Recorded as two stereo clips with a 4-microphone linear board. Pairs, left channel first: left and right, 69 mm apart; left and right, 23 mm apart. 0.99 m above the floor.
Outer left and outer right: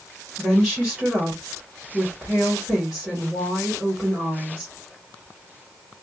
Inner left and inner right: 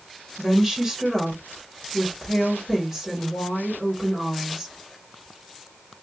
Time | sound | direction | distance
0.4 | a woman speaking | 5° right (ahead or behind) | 1.4 m